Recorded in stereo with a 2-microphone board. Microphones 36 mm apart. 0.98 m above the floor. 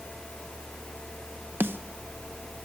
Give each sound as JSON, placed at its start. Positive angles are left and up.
{"t": 1.6, "sound": "a snare drum", "side_deg": -80, "distance_m": 0.8}